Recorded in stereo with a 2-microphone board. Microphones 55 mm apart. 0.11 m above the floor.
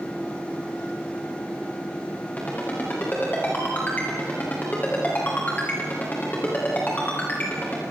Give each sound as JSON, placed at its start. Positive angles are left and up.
{"t": 2.4, "sound": "a ringtone", "side_deg": 30, "distance_m": 9.0}